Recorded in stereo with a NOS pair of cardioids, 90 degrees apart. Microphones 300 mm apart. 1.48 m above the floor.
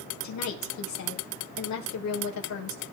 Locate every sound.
0.2 s a woman speaking: 65° left, 6 m